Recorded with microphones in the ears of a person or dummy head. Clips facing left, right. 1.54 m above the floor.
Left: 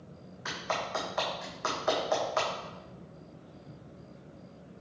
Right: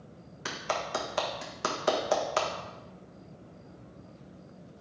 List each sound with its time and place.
0.5 s a clap: 45° right (ahead or behind), 1.5 m